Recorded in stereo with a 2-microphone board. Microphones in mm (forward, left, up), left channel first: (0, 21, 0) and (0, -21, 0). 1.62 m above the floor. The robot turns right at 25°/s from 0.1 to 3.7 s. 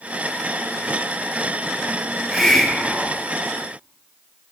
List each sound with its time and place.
2.1 s a hiss: centre (ahead or behind), 0.6 m; by 3.3 s 30° left (ahead or behind), 0.6 m